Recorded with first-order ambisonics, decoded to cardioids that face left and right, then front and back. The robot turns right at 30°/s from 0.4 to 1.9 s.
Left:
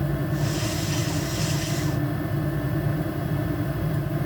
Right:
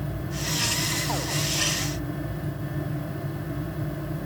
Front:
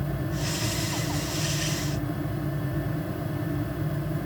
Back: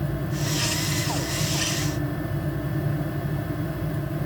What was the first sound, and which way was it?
Only background noise.